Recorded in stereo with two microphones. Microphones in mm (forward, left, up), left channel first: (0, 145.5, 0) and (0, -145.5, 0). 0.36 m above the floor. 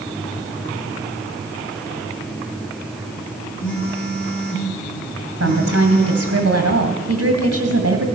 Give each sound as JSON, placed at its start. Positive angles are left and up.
{"t": 3.6, "sound": "a phone buzzing", "side_deg": 45, "distance_m": 8.0}
{"t": 5.4, "sound": "a woman speaking", "side_deg": -55, "distance_m": 2.5}